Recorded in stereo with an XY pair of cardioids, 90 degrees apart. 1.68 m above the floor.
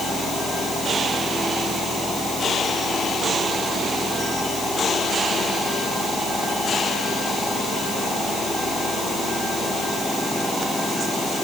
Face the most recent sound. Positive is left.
No sound to turn to.